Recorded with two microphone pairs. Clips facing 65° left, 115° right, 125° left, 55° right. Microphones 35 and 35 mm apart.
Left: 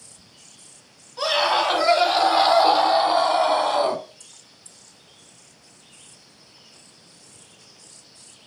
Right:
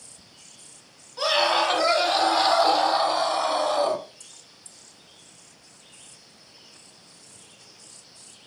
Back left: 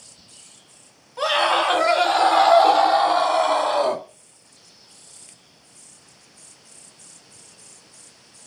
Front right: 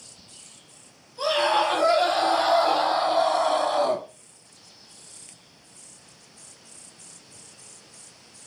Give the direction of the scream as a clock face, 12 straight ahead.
7 o'clock.